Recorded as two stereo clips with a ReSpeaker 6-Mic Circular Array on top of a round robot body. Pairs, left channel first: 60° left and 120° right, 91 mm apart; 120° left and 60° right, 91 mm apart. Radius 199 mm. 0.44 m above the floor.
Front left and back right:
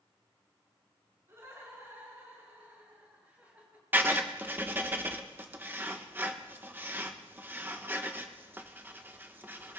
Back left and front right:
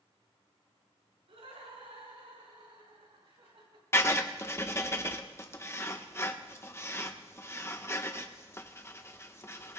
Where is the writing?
175° left, 1.6 m.